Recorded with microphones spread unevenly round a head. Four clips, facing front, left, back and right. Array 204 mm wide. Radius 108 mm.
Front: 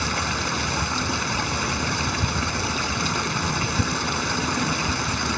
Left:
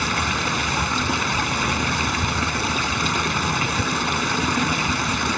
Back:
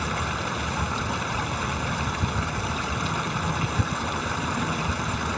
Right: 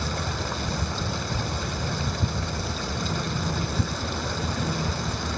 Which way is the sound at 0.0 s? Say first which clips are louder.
Left 7 dB, front 2 dB; 70° left.